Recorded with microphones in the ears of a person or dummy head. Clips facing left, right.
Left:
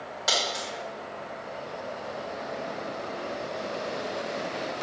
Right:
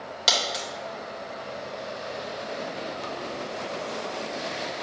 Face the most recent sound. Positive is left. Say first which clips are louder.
# right 1 dB
turn(degrees=-40)  # may be behind; listen again after turning